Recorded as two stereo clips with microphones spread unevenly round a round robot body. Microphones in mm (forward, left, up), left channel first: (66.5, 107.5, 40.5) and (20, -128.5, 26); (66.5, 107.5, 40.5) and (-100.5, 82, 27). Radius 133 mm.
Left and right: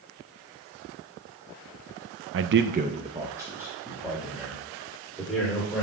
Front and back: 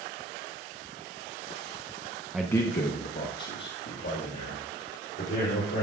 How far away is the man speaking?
About 0.5 m.